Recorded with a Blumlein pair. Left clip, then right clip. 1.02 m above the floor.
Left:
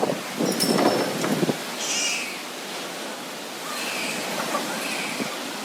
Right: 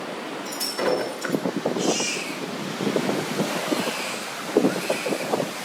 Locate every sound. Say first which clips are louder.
0.5 s breaking glass: left 4 dB; 60° left, 4.5 m
1.8 s a baby crying: even; 15° left, 7.5 m